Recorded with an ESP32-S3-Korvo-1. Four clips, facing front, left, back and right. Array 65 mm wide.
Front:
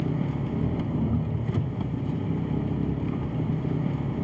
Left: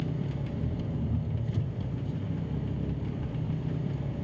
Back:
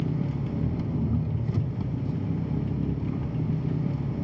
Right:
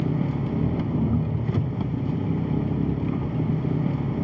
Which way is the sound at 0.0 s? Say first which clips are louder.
Right 9 dB, front 1 dB; 70° right.